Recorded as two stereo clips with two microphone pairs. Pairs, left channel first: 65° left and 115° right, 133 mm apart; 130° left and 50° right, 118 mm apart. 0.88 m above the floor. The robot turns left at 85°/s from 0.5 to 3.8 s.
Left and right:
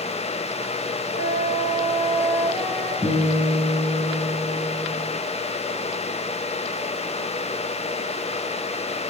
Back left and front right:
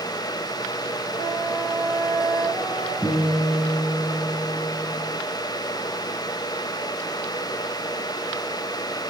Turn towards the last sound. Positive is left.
turn(degrees=145)